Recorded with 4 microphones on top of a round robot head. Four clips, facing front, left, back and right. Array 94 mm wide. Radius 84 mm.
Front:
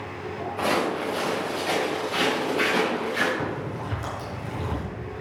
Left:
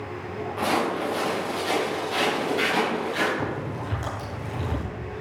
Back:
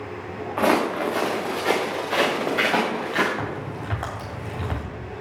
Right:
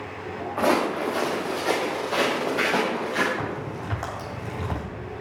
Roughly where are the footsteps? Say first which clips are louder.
Right 3 dB, back 5 dB; behind right.